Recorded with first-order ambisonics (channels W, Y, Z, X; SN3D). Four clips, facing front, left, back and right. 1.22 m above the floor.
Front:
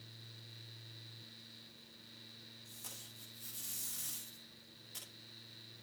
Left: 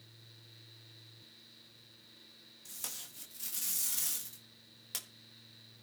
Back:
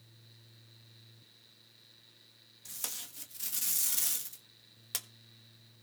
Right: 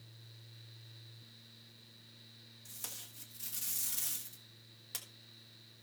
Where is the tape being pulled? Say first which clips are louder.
Left 3 dB, back 11 dB; 170° left, 1.4 m.